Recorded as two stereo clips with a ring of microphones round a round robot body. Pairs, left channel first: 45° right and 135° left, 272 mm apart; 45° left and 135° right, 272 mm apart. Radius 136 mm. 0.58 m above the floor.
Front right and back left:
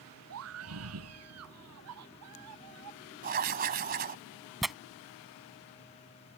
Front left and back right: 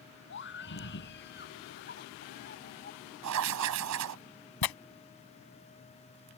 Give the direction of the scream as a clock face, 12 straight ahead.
9 o'clock.